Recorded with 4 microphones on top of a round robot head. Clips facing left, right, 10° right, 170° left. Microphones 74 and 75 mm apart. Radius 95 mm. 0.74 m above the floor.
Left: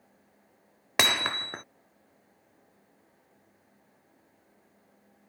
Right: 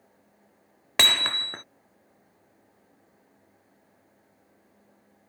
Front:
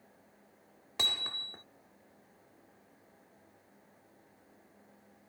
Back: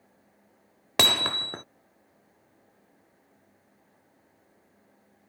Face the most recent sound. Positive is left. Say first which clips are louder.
# even, back 13 dB
turn(degrees=170)